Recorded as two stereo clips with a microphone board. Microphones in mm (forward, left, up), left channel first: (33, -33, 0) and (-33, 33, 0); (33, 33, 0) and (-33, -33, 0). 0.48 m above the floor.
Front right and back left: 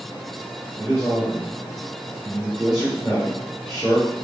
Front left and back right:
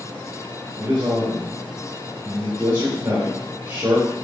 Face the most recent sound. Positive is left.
turn(degrees=-140)